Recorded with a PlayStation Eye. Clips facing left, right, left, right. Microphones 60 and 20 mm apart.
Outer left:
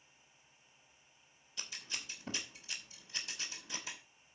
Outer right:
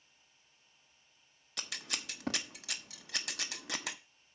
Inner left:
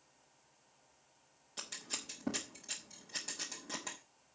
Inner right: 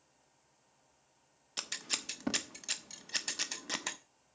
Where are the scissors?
85° right, 1.0 m.